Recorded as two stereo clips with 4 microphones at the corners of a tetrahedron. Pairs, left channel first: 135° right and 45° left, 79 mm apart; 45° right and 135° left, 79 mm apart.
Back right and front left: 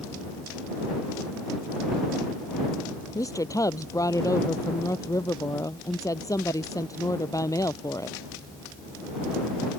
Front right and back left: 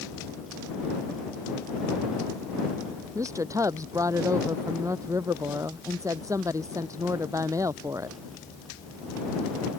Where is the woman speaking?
Straight behind.